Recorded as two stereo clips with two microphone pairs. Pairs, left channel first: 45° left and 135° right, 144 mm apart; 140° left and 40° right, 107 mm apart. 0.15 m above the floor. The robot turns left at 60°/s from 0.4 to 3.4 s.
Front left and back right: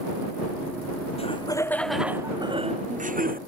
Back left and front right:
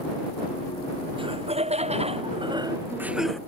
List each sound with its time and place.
1.2 s laughter: straight ahead; by 3.4 s 135° right